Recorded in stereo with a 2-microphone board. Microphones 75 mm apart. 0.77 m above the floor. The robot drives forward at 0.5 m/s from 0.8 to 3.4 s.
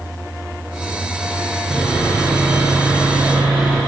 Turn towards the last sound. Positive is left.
turn(degrees=-10)  # may be behind; listen again after turning